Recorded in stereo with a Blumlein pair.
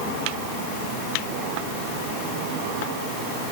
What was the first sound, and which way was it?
Only background noise.